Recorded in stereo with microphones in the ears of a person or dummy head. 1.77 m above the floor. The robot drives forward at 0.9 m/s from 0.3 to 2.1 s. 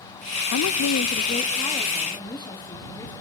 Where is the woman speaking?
65° left (ahead or behind), 0.6 m; by 3.1 s 20° left (ahead or behind), 1.4 m.